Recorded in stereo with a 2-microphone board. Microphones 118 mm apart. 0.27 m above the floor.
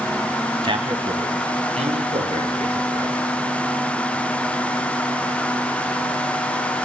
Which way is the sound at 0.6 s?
50° right (ahead or behind).